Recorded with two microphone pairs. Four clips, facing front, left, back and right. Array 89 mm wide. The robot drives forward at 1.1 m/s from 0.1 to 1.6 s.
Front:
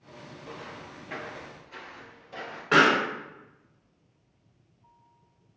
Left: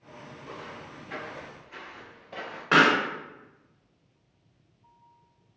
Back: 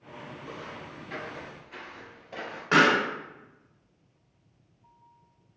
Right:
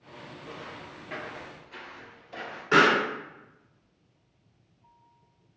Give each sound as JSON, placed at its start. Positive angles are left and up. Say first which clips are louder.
{"t": 0.4, "sound": "footsteps", "louder": "left 1 dB, front 1 dB", "azimuth_deg": -15, "distance_m": 1.9}
{"t": 2.7, "sound": "a pop", "louder": "even, front 1 dB", "azimuth_deg": 100, "distance_m": 1.3}